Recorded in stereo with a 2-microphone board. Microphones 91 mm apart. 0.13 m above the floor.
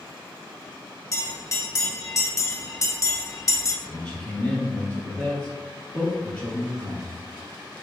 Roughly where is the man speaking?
Centre.